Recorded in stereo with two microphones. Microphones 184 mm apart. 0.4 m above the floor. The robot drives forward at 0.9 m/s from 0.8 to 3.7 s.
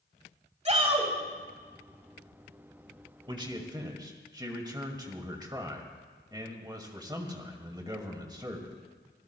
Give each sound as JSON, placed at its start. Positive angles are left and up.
{"t": 0.7, "sound": "a shout", "side_deg": -35, "distance_m": 2.5}
{"t": 3.3, "sound": "a man speaking", "side_deg": -25, "distance_m": 1.7}